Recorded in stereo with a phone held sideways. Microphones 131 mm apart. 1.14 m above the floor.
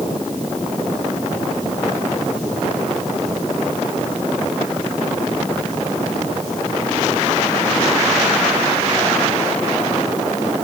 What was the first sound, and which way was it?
Only background noise.